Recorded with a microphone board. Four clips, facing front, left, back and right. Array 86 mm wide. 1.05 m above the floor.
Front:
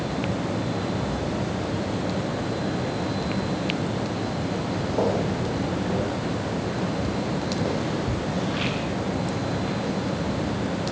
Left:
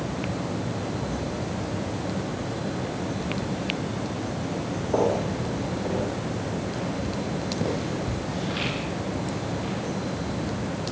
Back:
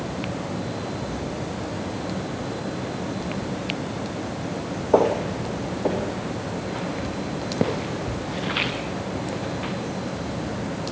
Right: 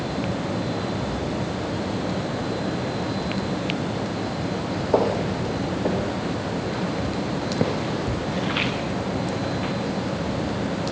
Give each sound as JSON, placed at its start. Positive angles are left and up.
{"t": 4.9, "sound": "footsteps", "azimuth_deg": -155, "distance_m": 6.5}